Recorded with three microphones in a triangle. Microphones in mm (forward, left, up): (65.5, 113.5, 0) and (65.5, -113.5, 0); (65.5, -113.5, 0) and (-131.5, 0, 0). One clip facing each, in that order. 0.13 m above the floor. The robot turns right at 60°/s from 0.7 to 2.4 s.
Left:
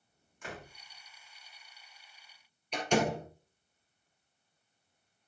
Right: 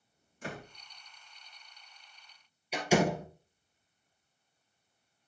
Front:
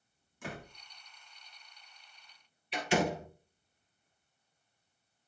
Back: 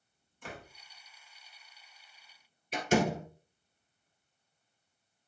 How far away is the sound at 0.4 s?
About 6.5 m.